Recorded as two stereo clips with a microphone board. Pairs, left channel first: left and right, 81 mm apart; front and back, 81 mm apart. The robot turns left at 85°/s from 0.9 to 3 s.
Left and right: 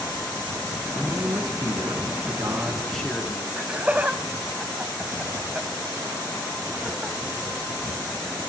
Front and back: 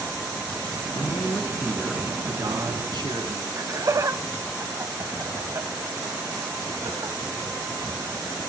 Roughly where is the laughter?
Behind right.